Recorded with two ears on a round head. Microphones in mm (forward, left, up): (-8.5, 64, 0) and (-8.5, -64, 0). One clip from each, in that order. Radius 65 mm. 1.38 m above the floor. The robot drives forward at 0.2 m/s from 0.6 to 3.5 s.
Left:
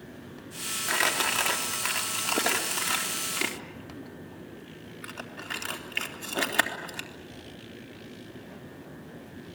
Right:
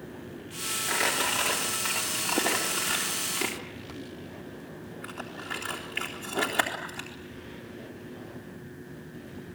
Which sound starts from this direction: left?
Crumpling, at 0.9 s.